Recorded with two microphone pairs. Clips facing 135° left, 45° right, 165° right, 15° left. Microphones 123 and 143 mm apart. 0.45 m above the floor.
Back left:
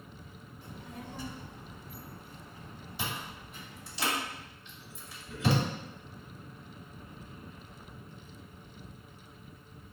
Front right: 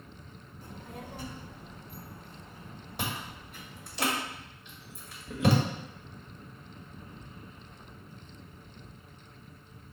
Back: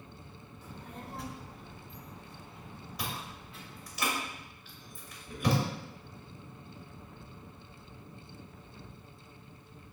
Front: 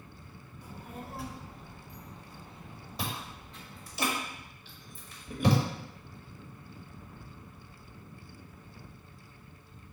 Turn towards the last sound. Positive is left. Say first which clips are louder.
# front right 2 dB, front 2 dB
turn(degrees=-40)